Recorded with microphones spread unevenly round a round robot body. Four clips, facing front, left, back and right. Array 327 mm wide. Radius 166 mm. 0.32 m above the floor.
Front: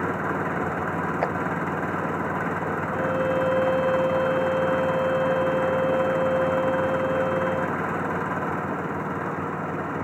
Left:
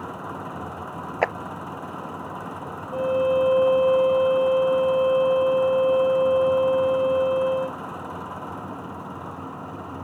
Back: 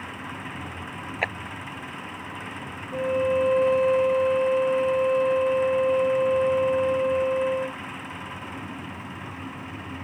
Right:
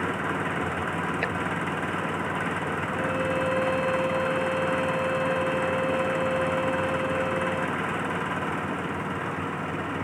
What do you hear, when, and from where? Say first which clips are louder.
0.0 s an engine running: right 5 dB, front 11 dB; 20° right
1.2 s a clap: left 6 dB, front 2 dB; 85° left
2.9 s a violin: left 9 dB, back 3 dB; 100° left